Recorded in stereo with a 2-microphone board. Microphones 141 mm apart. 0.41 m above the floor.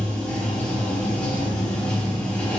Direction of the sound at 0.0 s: 10° left (ahead or behind).